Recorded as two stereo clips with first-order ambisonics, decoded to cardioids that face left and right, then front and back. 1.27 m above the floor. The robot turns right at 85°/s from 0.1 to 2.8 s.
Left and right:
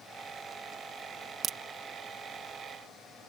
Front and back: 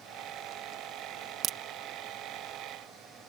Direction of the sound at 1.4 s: 140° right.